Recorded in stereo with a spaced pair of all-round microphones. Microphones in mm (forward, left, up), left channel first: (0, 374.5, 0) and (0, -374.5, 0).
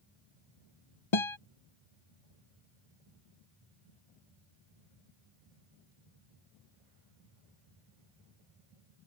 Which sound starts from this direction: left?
A guitar, at 1.1 s.